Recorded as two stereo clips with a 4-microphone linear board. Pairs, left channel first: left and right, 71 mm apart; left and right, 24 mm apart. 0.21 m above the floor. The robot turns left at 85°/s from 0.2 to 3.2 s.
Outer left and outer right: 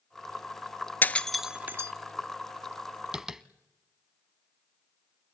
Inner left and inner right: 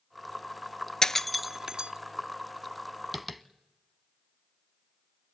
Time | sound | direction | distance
1.0 | breaking glass | 30° left (ahead or behind) | 0.6 m
3.1 | tapping | 10° right (ahead or behind) | 0.9 m